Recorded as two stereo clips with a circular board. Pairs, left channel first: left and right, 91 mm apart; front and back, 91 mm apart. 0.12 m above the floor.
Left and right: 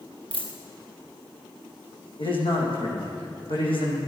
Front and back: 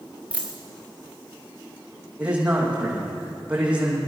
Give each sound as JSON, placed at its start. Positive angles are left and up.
{"t": 0.3, "sound": "a dropped coin", "azimuth_deg": 100, "distance_m": 3.5}
{"t": 2.2, "sound": "a man speaking", "azimuth_deg": 100, "distance_m": 5.0}